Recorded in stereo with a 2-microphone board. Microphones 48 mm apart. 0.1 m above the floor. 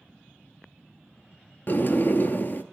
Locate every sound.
1.7 s a sliding door: 45° left (ahead or behind), 0.7 m